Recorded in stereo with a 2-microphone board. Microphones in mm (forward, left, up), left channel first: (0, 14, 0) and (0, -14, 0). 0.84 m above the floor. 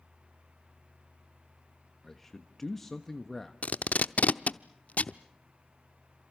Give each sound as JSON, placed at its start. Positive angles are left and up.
{"t": 2.0, "sound": "a man speaking", "side_deg": 10, "distance_m": 1.3}
{"t": 3.6, "sound": "tape being pulled", "side_deg": 65, "distance_m": 0.7}